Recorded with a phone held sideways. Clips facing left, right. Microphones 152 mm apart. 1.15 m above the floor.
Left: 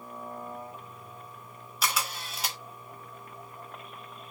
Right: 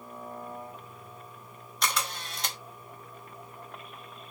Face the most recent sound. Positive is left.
turn(degrees=5)  # may be behind; listen again after turning